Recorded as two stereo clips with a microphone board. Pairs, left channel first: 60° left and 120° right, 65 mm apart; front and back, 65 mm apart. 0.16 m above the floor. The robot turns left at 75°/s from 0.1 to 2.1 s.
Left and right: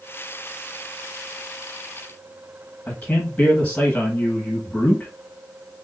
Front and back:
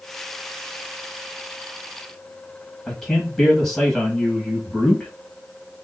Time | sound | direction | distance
2.9 | a man speaking | 85° left | 1.5 m